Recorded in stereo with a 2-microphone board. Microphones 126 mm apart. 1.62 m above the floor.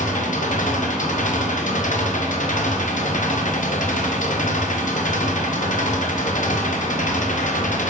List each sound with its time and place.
0.0 s an engine running: 75° left (ahead or behind), 0.9 m